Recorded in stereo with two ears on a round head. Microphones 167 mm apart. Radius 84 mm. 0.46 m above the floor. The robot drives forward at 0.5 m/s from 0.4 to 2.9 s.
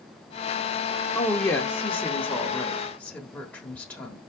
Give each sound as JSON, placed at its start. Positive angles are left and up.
{"t": 1.1, "sound": "a woman speaking", "side_deg": 15, "distance_m": 0.7}